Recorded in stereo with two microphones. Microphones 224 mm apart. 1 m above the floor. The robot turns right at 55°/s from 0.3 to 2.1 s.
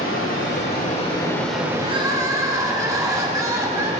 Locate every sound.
0.0 s running water: 110° left, 1.7 m; by 4.0 s 150° right, 1.7 m
1.8 s crying: 30° right (ahead or behind), 1.1 m; by 3.9 s 15° right (ahead or behind), 1.1 m